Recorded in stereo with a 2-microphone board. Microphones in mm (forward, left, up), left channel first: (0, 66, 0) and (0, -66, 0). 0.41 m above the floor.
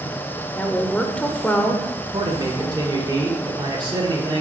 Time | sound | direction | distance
0.6 | a woman speaking | 10° left (ahead or behind) | 0.9 m
2.1 | a man speaking | 35° right (ahead or behind) | 1.2 m